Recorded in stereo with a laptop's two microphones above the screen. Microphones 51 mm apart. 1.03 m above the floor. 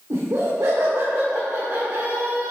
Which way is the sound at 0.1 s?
85° right.